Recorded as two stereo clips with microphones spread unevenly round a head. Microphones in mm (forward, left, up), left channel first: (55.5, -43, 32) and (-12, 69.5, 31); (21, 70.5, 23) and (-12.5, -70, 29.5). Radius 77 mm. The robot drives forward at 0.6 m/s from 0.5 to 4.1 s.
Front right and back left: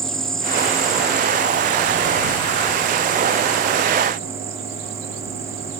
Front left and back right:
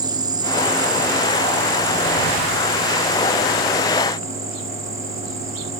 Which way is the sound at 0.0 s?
145° right.